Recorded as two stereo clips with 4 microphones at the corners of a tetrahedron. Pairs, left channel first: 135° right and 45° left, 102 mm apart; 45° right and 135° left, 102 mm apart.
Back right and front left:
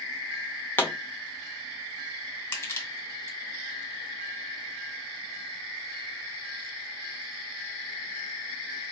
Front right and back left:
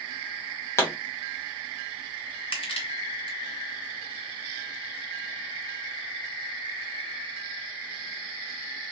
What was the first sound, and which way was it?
A pop, 80° right.